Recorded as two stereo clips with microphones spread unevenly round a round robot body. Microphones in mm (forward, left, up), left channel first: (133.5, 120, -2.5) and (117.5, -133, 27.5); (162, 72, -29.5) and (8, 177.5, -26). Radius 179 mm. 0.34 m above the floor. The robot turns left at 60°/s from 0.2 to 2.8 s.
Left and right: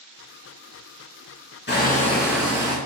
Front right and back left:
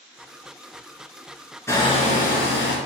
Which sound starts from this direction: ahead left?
Hammering, at 1.7 s.